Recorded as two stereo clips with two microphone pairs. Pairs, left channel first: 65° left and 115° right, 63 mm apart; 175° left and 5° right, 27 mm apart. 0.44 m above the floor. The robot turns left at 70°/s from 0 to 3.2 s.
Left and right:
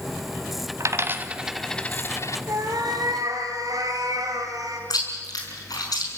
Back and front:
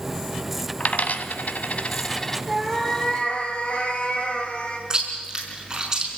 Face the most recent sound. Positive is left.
turn(degrees=60)